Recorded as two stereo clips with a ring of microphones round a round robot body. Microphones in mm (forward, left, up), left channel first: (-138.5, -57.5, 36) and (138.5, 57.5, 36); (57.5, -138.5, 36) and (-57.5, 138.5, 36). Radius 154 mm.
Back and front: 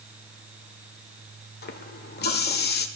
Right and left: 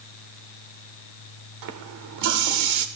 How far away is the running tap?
About 1.3 m.